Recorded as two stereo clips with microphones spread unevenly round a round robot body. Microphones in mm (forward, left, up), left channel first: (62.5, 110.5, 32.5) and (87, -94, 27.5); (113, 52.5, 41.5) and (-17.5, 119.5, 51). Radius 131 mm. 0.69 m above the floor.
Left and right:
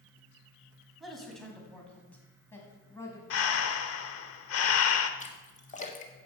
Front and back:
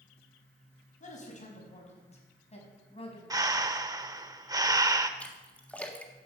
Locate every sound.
1.0 s a man speaking: 5° left, 4.5 m; by 3.2 s 20° left, 5 m
3.3 s breathing: 85° left, 1.0 m
5.2 s a splash: 50° left, 1.8 m